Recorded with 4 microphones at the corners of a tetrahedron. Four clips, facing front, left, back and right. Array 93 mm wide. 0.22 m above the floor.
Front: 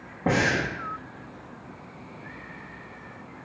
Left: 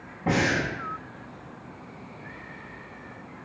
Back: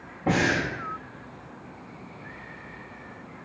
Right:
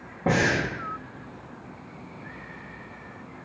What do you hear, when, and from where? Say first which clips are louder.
0.3 s breathing: right 1 dB, even; 40° right, 1.8 m